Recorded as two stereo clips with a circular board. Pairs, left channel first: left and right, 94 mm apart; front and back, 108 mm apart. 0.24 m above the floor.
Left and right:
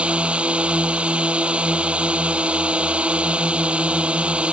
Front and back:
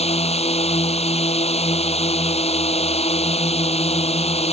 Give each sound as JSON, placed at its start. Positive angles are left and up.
{"t": 0.0, "sound": "a drone", "azimuth_deg": -10}